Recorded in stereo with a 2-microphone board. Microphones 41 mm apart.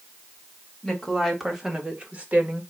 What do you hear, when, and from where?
0.8 s a woman speaking: 5° left (ahead or behind), 2 m; by 2.6 s 50° right (ahead or behind), 1.8 m